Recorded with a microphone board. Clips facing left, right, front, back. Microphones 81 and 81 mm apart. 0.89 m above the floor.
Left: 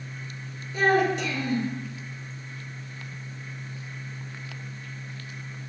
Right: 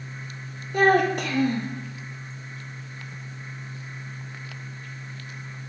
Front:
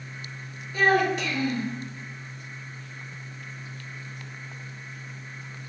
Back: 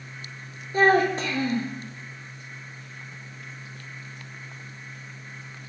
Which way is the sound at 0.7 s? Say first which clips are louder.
Right 3 dB, back 2 dB; 125° right.